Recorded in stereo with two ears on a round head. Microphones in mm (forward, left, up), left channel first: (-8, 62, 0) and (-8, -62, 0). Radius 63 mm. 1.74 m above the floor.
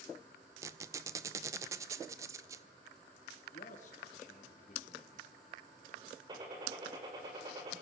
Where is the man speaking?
60° left (ahead or behind), 4 m.